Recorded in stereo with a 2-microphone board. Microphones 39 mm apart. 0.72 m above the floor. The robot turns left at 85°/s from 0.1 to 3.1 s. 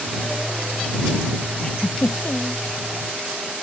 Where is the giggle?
165° left; by 2.6 s 75° left.